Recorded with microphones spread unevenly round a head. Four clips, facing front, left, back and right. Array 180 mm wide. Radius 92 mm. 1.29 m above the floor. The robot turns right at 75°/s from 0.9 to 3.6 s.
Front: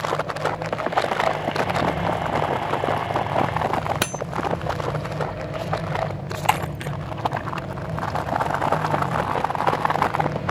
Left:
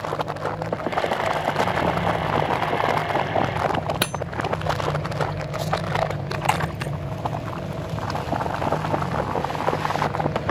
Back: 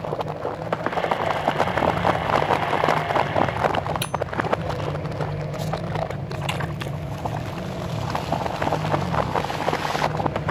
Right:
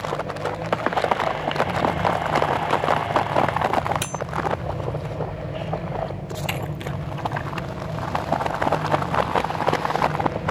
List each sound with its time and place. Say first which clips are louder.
4.0 s cutlery clinking: left 3 dB, front 1 dB; 45° left
6.5 s breaking glass: left 6 dB, front 10 dB; 30° left